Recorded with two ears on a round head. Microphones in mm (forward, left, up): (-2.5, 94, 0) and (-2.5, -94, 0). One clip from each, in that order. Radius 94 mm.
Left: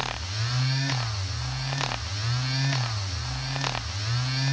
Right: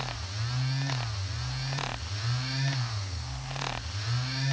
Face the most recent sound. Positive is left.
No sound to turn to.